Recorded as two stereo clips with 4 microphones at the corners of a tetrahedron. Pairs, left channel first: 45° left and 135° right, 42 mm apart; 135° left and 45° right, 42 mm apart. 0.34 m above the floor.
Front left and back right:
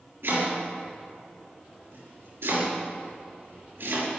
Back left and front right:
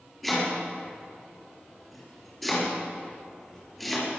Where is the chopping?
140° right, 6.5 m.